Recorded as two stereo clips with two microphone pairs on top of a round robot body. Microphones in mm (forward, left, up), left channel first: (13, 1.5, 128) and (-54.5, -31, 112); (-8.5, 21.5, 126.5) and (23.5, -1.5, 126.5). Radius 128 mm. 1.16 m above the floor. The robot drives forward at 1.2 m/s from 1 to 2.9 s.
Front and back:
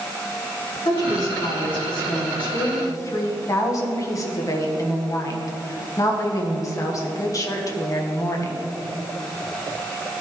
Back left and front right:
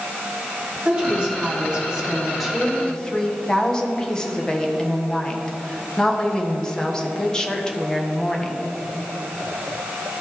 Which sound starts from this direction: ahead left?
A woman speaking, at 0.8 s.